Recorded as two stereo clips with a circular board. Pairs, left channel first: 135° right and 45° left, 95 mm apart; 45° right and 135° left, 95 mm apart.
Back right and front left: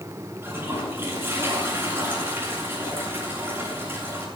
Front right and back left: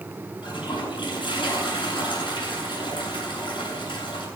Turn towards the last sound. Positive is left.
turn(degrees=-20)